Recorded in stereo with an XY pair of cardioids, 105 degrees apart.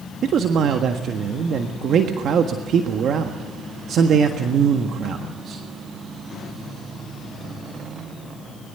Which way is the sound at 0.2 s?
65° right.